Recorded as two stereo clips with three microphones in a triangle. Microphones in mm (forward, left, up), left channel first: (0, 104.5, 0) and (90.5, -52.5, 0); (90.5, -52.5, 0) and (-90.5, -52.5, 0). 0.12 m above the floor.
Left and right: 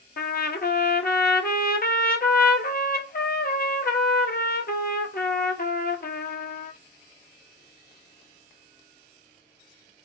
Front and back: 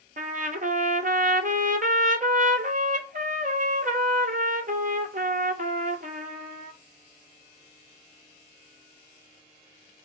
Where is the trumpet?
145° left, 0.5 m.